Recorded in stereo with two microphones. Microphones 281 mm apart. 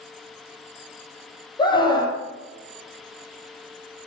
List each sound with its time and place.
1.6 s a scream: 15° left (ahead or behind), 6.5 m